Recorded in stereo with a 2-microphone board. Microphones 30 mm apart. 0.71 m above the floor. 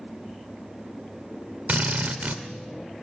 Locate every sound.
1.7 s a drill: 60° right (ahead or behind), 1.9 m